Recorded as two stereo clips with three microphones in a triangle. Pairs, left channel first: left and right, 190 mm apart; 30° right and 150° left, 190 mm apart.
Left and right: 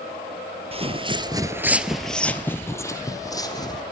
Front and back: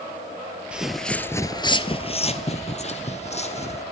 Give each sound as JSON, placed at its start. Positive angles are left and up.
{"t": 0.7, "sound": "footsteps", "azimuth_deg": -130, "distance_m": 1.3}